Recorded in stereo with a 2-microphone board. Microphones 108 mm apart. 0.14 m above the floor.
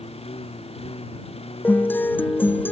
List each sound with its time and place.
0.0 s a lawn mower: 65° left (ahead or behind)
1.6 s a guitar: 15° left (ahead or behind)